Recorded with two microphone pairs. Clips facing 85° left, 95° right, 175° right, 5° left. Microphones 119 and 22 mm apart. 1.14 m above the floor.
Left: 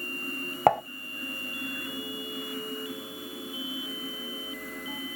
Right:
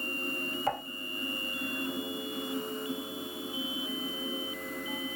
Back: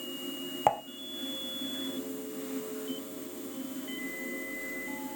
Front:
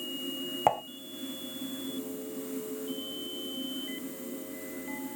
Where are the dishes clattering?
95° left, 0.5 m.